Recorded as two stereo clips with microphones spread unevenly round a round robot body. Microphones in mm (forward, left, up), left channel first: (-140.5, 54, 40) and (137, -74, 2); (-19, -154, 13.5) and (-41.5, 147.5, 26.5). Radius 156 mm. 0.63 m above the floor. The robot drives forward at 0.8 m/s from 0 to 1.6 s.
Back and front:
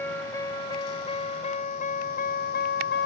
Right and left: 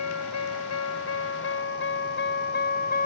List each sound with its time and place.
0.0 s a vehicle: 120° right; by 3.1 s 150° right